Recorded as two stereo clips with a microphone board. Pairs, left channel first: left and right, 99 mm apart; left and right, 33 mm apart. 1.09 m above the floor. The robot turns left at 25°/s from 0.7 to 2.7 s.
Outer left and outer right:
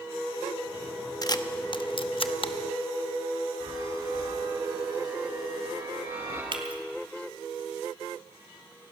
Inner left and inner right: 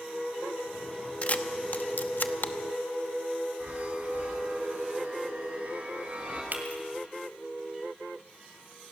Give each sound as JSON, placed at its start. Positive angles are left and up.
{"t": 1.2, "sound": "a camera shutter", "side_deg": 40, "distance_m": 0.8}
{"t": 3.6, "sound": "a chime", "side_deg": -65, "distance_m": 7.0}
{"t": 6.5, "sound": "breaking glass", "side_deg": -55, "distance_m": 2.0}